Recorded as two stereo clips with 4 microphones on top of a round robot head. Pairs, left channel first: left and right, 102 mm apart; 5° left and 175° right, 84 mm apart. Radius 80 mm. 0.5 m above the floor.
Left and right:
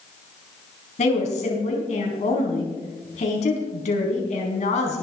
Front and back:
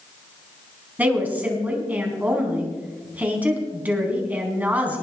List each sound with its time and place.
1.0 s a woman speaking: 110° left, 4.5 m